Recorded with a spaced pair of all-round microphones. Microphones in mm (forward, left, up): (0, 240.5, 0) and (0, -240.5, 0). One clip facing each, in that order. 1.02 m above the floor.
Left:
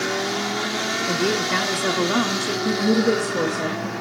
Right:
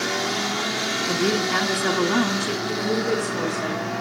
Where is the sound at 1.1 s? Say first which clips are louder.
Even; 5° right (ahead or behind), 1.3 m.